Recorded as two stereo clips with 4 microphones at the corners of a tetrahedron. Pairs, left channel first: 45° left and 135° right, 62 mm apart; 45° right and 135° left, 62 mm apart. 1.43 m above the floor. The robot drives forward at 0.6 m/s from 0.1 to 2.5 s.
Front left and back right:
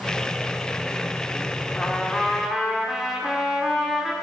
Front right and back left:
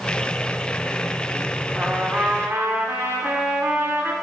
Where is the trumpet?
100° left, 1.1 m; by 4.1 s 140° left, 1.2 m.